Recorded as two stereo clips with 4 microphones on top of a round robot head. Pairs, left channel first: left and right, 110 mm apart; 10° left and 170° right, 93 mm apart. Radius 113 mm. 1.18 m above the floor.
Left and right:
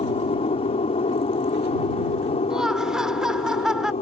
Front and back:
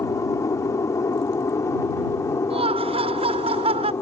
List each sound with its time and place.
0.0 s an aircraft: 65° left; by 4.0 s 70° left
2.5 s laughter: 175° right